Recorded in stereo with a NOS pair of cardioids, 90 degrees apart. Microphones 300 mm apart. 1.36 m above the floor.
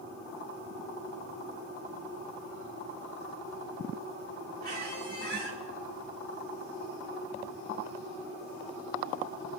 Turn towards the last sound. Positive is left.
turn(degrees=-35)